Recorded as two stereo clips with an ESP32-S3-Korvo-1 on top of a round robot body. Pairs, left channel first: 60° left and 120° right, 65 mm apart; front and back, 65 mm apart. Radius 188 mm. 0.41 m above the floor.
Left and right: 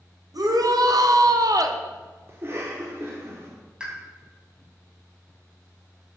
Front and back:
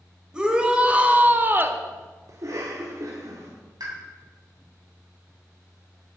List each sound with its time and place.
0.3 s a shout: 105° right, 2.5 m; by 1.8 s 135° right, 1.4 m
2.3 s a cough: 165° right, 1.8 m
3.8 s a pop: 165° left, 3.5 m